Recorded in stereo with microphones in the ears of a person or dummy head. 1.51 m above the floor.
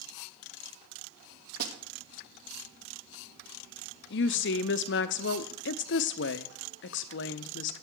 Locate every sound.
1.6 s a snare drum: 55° right (ahead or behind), 1.3 m
4.1 s a woman speaking: 60° left (ahead or behind), 0.7 m